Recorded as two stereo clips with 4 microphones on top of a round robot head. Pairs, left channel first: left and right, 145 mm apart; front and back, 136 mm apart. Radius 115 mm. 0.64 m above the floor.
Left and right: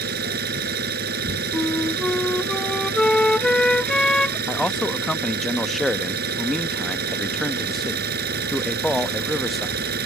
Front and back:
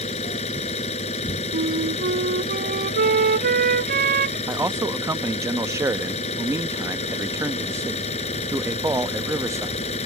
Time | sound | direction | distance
0.0 | an engine running | 60° right | ?
1.5 | a flute | 175° left | ?
4.5 | a man speaking | straight behind | ?